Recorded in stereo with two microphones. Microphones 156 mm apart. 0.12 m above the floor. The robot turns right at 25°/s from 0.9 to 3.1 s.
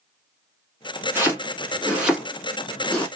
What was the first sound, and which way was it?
Chopping, 10° right (ahead or behind).